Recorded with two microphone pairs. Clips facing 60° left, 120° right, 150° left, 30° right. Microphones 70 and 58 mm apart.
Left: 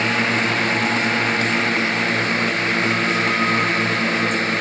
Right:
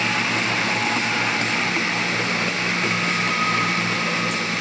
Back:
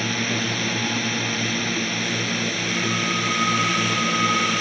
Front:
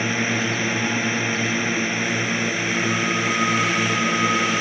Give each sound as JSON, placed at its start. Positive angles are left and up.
{"t": 0.0, "sound": "a drone", "azimuth_deg": 35}